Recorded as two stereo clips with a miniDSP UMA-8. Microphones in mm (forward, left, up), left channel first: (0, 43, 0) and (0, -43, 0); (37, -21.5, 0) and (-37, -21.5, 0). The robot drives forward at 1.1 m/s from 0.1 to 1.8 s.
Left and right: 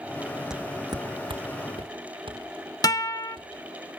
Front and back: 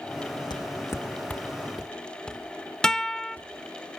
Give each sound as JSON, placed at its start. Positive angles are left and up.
{"t": 0.5, "sound": "footsteps", "azimuth_deg": -5, "distance_m": 0.6}
{"t": 2.8, "sound": "a guitar", "azimuth_deg": 80, "distance_m": 0.5}